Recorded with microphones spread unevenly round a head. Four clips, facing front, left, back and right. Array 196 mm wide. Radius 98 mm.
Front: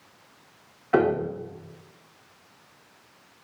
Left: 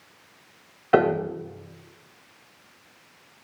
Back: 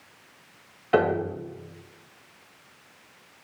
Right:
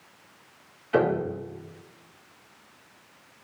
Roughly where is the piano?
Left.